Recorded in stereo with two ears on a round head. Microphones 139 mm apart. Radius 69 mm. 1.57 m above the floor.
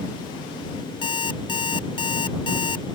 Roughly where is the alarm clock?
Left.